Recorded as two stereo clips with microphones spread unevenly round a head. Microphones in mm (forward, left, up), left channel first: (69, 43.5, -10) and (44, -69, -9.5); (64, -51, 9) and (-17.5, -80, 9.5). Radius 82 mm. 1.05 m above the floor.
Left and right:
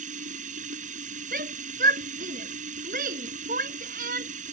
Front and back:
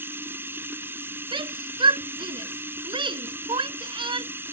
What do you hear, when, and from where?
0.0 s running water: 95° right
1.3 s a shout: 135° right